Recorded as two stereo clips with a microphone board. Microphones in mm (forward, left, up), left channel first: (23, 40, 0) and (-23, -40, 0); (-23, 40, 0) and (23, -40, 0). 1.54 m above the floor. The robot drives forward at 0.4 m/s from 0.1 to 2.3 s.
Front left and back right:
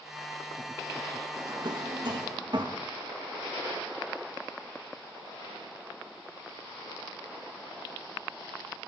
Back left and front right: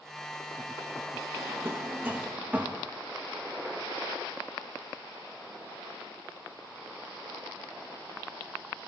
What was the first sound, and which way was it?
A drawer, 105° right.